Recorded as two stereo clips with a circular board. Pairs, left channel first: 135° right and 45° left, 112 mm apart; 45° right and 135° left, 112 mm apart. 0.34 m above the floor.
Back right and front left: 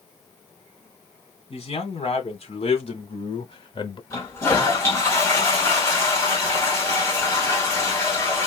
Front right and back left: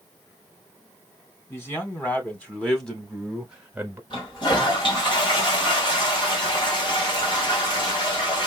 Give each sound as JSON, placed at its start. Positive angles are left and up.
{"t": 1.5, "sound": "a man speaking", "azimuth_deg": -115, "distance_m": 2.5}
{"t": 4.1, "sound": "a toilet flushing", "azimuth_deg": -75, "distance_m": 2.5}